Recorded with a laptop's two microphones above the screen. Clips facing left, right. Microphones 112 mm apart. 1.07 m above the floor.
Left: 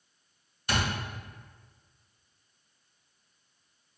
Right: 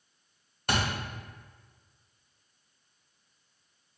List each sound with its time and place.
0.7 s a thud: 65° right (ahead or behind), 1.5 m